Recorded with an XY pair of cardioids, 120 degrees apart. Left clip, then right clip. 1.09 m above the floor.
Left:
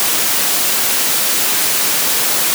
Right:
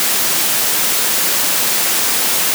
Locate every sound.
Only background noise.